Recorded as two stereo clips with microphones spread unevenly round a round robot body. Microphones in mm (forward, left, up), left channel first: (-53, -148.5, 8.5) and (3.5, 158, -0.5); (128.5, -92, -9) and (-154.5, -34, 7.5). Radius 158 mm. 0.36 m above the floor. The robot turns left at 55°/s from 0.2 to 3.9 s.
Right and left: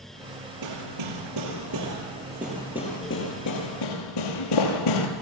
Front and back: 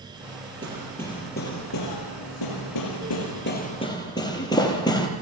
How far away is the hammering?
About 5 m.